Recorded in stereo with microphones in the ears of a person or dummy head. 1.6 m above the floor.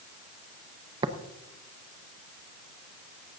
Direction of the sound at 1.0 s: 20° right (ahead or behind).